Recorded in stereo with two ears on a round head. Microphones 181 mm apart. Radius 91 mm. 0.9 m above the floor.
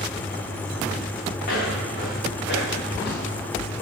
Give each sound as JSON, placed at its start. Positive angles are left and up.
{"t": 1.4, "sound": "footsteps", "side_deg": 50, "distance_m": 4.0}